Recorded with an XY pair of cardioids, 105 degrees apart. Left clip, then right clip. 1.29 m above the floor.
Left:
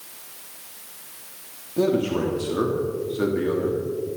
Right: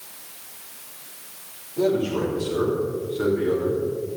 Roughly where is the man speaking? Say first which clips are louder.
Even; ahead left.